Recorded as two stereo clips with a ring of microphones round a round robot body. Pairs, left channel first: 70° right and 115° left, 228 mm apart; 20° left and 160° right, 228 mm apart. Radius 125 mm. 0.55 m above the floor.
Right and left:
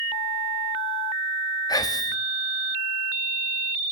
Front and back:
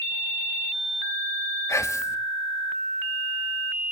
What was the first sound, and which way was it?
Whispering, 30° right.